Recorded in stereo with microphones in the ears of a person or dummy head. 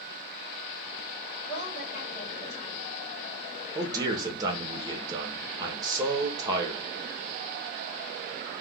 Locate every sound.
1.5 s a woman speaking: 30° left (ahead or behind), 1.5 m
3.8 s a man speaking: 25° right (ahead or behind), 0.9 m